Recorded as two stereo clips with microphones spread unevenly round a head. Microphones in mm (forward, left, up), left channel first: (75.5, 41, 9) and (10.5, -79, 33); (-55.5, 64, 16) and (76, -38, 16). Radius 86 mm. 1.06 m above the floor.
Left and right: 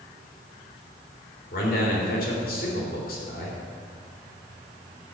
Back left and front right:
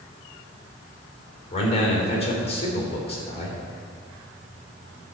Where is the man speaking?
90° left, 3 m.